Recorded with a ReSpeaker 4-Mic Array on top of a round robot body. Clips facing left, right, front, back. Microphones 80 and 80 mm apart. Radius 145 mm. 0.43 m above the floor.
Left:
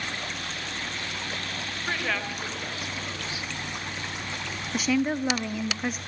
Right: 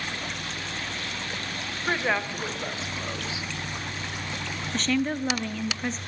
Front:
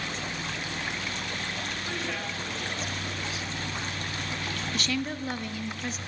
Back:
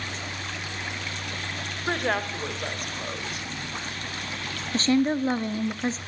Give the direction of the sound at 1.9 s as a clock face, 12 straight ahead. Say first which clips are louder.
Right 4 dB, back 11 dB; 5 o'clock.